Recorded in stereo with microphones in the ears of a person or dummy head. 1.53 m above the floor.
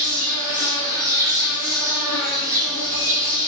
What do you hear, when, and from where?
0.0 s an insect: 25° right (ahead or behind), 1.4 m